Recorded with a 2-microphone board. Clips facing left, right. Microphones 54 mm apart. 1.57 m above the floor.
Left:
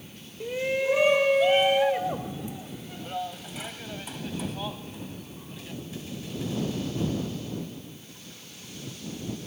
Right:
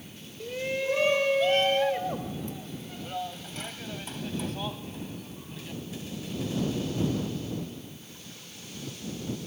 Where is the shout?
20° left (ahead or behind); by 5.8 s centre (ahead or behind).